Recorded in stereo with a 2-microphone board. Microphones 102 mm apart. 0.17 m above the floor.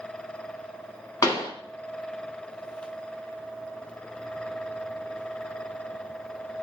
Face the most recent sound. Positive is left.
turn(degrees=35)  # may be behind; listen again after turning